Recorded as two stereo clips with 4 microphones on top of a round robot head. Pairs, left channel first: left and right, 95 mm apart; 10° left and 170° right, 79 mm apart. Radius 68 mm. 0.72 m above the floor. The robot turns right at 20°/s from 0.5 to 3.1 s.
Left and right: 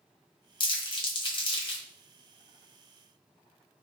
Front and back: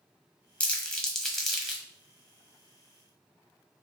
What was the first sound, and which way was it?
Crumpling, 75° left.